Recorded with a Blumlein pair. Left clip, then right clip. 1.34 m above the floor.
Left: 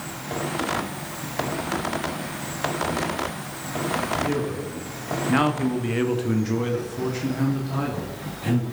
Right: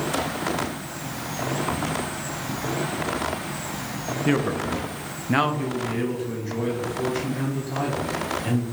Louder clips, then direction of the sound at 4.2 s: Right 3 dB; 60° right.